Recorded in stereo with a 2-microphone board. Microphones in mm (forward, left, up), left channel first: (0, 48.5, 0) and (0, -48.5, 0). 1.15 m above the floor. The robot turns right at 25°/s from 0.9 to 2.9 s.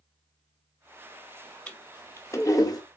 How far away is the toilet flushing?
About 1.4 m.